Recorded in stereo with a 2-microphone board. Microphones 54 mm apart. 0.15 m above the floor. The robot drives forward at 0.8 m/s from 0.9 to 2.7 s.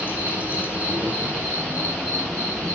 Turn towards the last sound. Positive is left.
turn(degrees=-20)  # may be behind; listen again after turning